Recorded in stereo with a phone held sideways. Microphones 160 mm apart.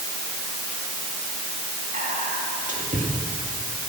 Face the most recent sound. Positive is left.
turn(degrees=-55)  # may be behind; listen again after turning